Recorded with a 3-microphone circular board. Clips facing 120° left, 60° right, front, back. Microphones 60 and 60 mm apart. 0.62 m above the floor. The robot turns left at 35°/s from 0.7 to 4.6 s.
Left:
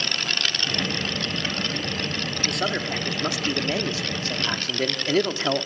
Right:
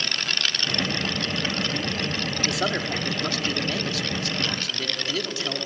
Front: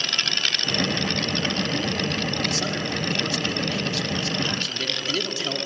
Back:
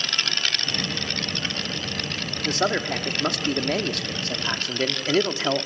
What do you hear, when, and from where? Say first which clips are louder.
2.5 s a man speaking: even, back 3 dB; 140° right, 1.2 m; by 5.7 s 145° left, 1.2 m